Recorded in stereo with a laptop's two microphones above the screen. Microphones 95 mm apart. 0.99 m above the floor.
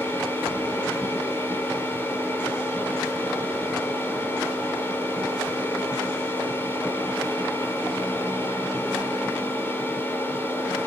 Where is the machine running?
20° left (ahead or behind), 4 m.